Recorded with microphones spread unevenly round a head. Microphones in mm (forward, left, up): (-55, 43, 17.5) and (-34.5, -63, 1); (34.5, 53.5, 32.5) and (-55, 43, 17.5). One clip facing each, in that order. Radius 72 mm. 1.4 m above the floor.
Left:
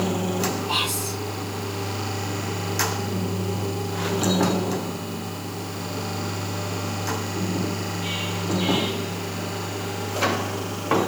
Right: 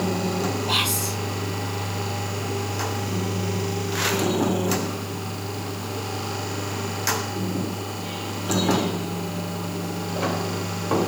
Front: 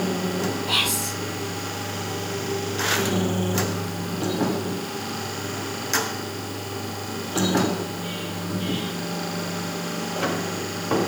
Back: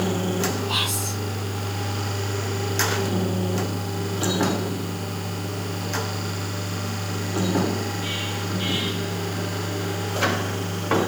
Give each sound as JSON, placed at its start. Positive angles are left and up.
{"t": 0.7, "sound": "whispering", "azimuth_deg": -35, "distance_m": 8.0}